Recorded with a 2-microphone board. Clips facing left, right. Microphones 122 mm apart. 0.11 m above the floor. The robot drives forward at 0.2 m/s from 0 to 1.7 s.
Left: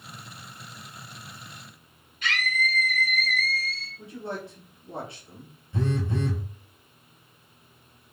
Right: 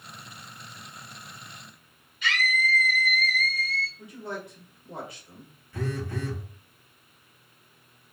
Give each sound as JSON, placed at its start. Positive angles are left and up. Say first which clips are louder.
{"t": 2.2, "sound": "a scream", "louder": "right 1 dB", "side_deg": 45, "distance_m": 1.8}
{"t": 4.0, "sound": "a man speaking", "louder": "left 2 dB", "side_deg": 25, "distance_m": 1.3}
{"t": 5.7, "sound": "a phone buzzing", "louder": "left 4 dB", "side_deg": 25, "distance_m": 0.6}